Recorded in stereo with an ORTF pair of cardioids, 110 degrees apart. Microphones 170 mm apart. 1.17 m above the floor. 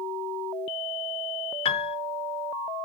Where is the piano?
35° left, 0.5 m.